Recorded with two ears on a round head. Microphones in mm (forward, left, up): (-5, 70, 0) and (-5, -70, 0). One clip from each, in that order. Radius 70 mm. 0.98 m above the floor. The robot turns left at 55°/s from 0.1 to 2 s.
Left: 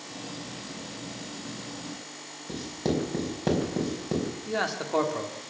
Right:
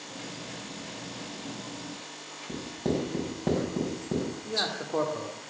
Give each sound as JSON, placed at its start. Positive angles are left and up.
{"t": 2.5, "sound": "writing", "side_deg": 70, "distance_m": 4.0}
{"t": 4.5, "sound": "a man speaking", "side_deg": 80, "distance_m": 2.5}